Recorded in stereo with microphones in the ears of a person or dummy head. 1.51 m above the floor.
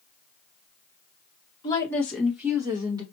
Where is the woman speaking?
25° left (ahead or behind), 1.3 m; by 3.0 s 25° right (ahead or behind), 1.9 m.